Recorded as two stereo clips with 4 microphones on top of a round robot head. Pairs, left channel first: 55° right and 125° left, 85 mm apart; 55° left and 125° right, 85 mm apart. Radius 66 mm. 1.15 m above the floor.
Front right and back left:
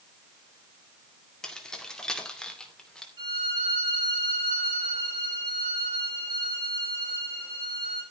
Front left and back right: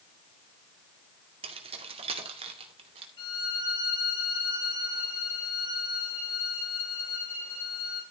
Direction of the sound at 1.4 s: 135° right.